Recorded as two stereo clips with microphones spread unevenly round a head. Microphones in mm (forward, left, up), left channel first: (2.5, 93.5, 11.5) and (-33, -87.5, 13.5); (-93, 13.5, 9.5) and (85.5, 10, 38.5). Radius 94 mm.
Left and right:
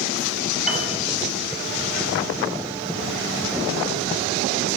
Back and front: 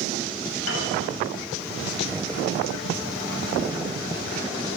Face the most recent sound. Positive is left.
turn(degrees=170)